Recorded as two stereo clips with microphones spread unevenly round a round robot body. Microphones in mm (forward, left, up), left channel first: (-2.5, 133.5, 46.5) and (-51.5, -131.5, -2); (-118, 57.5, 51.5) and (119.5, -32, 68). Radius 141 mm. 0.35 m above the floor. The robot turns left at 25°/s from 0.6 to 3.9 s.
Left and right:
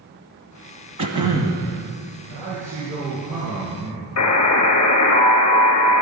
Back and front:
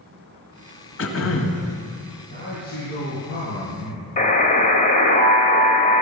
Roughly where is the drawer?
I don't hear a drawer.